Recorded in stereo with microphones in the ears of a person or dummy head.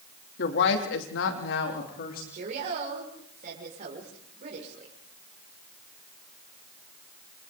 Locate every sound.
0.4 s a woman speaking: 65° left (ahead or behind), 2.5 m; by 2.2 s 45° left (ahead or behind), 3 m
2.3 s a woman speaking: 45° right (ahead or behind), 5.5 m